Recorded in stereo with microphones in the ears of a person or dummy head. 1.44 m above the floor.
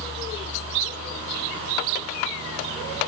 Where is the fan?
30° right (ahead or behind), 1.0 m.